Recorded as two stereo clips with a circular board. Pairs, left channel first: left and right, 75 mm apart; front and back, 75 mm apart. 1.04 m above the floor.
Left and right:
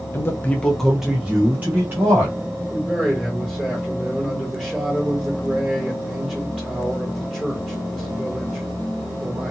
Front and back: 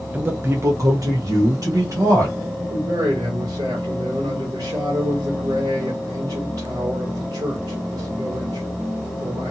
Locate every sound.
0.1 s a man speaking: 120° left, 0.6 m; by 2.4 s 145° right, 1.4 m
2.7 s a man speaking: 175° right, 1.8 m